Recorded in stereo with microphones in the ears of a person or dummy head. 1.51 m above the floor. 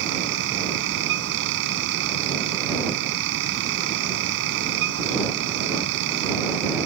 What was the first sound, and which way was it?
A fan, 65° right (ahead or behind).